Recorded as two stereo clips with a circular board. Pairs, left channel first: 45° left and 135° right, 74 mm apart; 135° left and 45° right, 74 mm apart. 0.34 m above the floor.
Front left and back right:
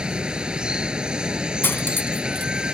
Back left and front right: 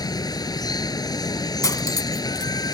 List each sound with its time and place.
0.0 s running water: 150° left
1.6 s cutlery clinking: 105° left